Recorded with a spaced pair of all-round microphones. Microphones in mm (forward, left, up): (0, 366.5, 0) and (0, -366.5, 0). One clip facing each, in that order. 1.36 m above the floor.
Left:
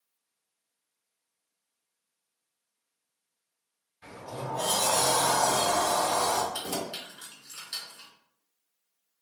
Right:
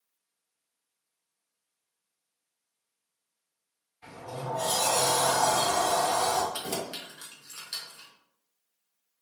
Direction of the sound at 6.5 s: 40° right (ahead or behind).